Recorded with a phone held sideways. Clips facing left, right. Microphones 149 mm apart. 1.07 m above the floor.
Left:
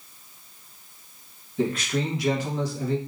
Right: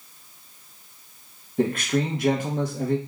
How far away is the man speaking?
About 0.9 m.